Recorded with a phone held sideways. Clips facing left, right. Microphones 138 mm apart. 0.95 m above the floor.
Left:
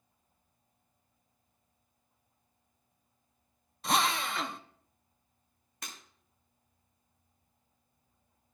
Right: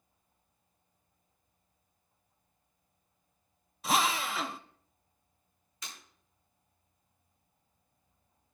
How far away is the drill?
About 0.6 m.